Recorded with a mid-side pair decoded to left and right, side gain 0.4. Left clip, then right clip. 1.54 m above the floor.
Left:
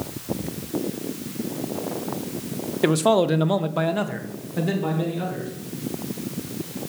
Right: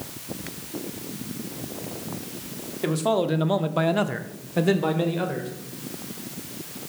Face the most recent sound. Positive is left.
turn(degrees=-55)